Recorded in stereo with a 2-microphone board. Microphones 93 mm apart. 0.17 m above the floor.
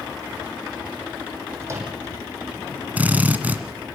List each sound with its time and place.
1.6 s a microwave: 30° right (ahead or behind), 5.5 m
3.0 s a drill: 15° right (ahead or behind), 1.8 m